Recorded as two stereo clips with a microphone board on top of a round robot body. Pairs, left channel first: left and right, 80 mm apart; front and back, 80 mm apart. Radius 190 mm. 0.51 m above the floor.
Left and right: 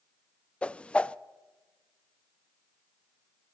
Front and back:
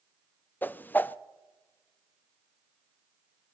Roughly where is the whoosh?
Ahead left.